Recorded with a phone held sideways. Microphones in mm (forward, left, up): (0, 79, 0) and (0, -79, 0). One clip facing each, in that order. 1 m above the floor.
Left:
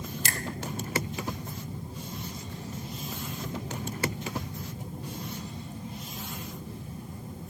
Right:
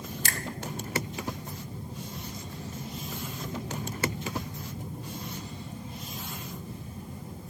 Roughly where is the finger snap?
Centre.